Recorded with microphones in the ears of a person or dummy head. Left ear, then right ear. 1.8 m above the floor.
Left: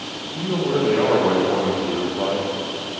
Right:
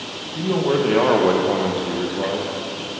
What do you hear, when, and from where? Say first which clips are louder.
0.3 s a man speaking: right 2 dB; 60° right (ahead or behind), 2 m; by 2.9 s 30° left (ahead or behind), 1.9 m